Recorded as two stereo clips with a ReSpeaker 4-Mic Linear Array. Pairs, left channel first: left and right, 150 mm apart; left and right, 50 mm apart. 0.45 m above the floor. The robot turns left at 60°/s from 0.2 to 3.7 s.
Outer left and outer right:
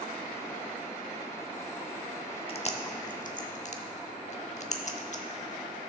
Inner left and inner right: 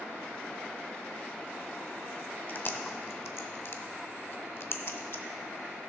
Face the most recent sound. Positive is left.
turn(degrees=50)  # may be behind; listen again after turning